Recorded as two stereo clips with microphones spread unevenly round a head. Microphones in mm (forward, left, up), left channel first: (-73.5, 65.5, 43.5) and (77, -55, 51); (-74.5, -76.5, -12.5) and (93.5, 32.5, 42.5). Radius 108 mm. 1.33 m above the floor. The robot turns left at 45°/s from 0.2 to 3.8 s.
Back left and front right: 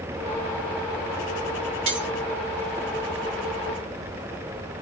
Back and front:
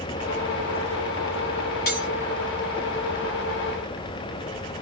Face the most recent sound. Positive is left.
turn(degrees=175)